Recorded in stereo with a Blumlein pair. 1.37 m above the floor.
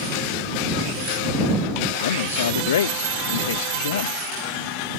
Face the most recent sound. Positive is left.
turn(degrees=60)